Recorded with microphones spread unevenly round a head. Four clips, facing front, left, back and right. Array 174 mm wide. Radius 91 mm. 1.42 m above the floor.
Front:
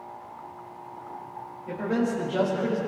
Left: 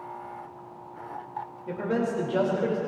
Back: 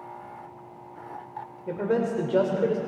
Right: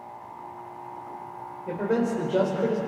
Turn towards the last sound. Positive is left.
turn(degrees=-160)